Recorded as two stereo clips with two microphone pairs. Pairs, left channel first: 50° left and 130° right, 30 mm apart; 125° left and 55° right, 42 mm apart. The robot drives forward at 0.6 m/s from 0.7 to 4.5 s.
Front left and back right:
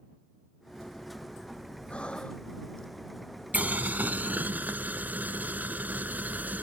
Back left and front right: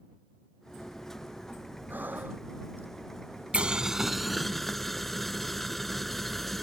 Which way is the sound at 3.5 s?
110° right.